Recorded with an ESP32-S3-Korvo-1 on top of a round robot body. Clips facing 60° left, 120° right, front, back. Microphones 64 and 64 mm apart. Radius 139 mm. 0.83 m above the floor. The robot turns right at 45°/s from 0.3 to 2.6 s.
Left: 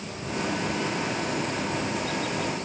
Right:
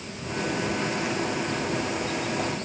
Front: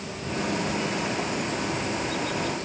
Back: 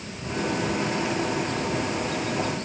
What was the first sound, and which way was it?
Only background noise.